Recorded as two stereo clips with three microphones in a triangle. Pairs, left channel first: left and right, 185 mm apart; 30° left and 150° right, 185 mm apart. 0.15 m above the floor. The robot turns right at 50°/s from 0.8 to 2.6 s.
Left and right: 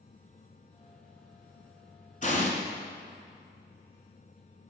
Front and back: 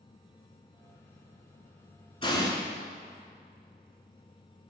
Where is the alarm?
No alarm in this recording.